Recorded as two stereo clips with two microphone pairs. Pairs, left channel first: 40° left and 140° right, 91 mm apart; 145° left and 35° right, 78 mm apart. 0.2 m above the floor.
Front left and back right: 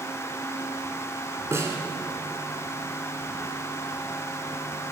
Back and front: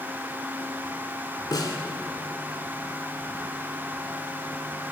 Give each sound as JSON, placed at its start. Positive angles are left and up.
{"t": 1.5, "sound": "a snare drum", "azimuth_deg": 170, "distance_m": 0.8}